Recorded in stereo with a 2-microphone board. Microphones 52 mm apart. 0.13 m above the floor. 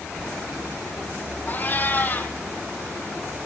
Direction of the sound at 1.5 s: 35° left (ahead or behind).